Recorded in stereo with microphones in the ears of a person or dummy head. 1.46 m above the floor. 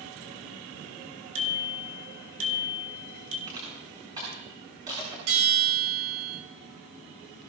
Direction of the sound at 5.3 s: 80° right.